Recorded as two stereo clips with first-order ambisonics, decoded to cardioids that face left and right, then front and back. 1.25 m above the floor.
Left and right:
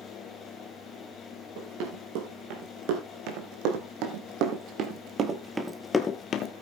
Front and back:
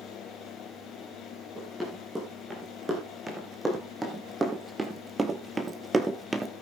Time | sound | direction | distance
1.6 | running footsteps | 95° right | 5 m